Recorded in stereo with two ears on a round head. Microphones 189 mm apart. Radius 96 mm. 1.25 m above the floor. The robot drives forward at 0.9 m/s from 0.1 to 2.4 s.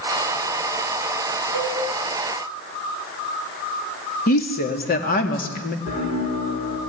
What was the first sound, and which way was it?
A cowbell, 80° left.